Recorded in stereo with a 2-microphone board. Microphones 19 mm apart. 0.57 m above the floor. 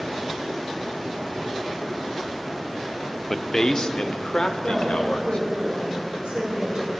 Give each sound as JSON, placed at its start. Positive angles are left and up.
{"t": 3.3, "sound": "a man speaking", "side_deg": 20, "distance_m": 0.7}
{"t": 4.6, "sound": "a woman speaking", "side_deg": -60, "distance_m": 6.0}